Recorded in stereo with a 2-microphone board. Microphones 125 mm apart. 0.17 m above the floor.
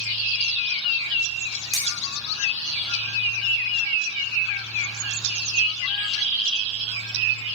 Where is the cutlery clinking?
Centre (ahead or behind), 5.5 m.